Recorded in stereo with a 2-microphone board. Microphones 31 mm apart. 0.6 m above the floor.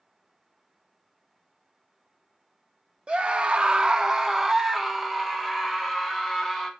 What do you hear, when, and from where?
3.1 s a scream: 35° right (ahead or behind), 0.7 m; by 6.7 s 5° right (ahead or behind), 3 m